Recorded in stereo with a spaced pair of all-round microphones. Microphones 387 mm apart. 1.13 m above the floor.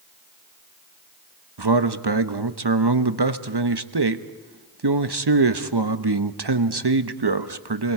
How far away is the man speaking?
About 1.1 m.